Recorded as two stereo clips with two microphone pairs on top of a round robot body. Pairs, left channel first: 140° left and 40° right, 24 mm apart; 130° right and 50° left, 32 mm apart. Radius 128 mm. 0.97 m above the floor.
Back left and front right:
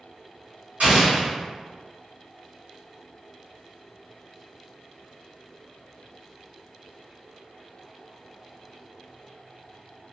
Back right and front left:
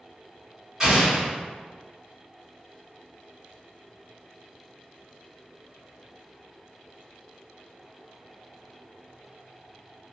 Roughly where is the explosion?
Ahead right.